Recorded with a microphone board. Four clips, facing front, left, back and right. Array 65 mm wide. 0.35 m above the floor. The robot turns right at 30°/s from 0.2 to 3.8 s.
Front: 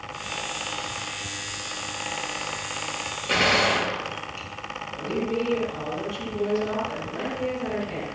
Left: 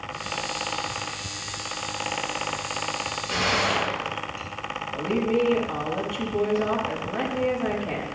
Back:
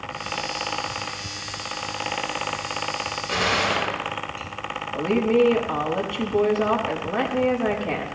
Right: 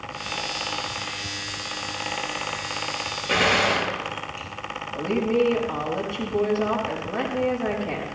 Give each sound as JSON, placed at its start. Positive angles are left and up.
{"t": 3.3, "sound": "a gunshot", "azimuth_deg": -55, "distance_m": 4.0}
{"t": 4.9, "sound": "a woman speaking", "azimuth_deg": -170, "distance_m": 3.5}